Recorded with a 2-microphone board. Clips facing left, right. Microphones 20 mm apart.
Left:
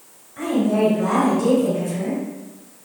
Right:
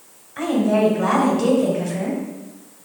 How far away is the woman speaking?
About 2.0 m.